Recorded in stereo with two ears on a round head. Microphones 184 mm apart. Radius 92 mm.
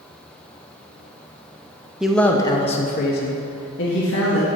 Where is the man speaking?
5° right (ahead or behind), 0.7 m; by 4.5 s 70° left (ahead or behind), 1.4 m.